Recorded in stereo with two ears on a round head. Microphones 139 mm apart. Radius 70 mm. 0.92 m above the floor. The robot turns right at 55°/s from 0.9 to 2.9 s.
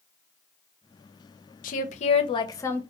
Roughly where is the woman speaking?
Left.